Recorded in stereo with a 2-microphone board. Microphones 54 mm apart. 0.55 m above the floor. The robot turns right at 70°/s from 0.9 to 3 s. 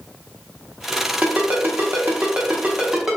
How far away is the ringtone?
About 0.8 m.